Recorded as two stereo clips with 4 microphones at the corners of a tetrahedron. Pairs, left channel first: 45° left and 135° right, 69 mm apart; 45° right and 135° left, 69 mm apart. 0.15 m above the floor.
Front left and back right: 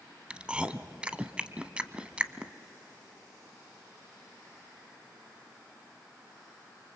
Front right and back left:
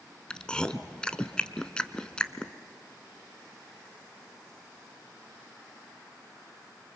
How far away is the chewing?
About 0.8 m.